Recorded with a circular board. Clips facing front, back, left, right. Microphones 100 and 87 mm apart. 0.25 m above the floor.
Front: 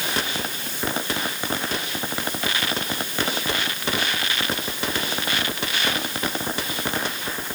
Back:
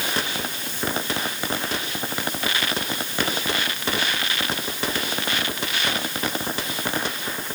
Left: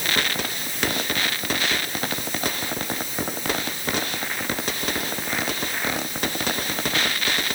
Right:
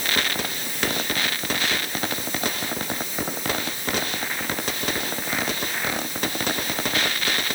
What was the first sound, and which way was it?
Only background noise.